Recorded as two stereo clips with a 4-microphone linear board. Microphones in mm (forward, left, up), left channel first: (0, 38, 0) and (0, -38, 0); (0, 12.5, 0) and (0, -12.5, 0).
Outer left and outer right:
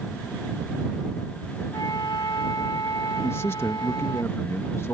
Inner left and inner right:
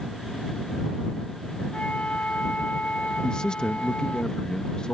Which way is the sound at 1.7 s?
65° left (ahead or behind).